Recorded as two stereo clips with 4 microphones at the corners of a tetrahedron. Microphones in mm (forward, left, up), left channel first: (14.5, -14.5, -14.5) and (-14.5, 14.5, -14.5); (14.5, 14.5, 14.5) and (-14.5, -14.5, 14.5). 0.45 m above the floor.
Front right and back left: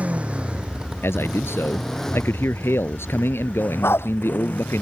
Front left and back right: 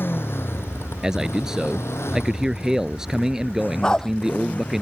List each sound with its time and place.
0.0 s a motorcycle: 80° left; by 4.8 s 10° right
1.0 s a man speaking: 60° right
3.8 s a dog barking: 30° right